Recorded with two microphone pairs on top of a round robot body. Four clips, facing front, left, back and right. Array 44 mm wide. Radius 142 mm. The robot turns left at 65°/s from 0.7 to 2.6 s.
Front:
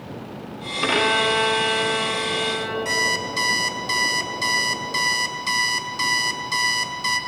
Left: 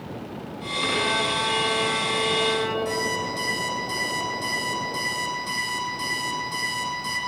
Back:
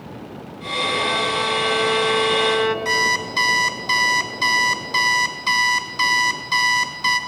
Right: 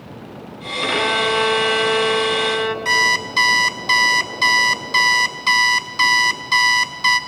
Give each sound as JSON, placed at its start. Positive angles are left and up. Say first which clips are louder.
{"t": 0.8, "sound": "a violin", "louder": "right 6 dB, front 2 dB", "azimuth_deg": -25, "distance_m": 1.9}
{"t": 2.9, "sound": "an alarm clock", "louder": "right 9 dB, back 3 dB", "azimuth_deg": -110, "distance_m": 0.7}